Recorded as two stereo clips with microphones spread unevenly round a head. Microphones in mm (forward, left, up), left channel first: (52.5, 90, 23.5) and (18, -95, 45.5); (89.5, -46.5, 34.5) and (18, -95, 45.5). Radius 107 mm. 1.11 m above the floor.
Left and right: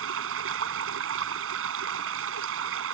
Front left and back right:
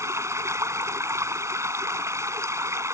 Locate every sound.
0.0 s running water: 90° right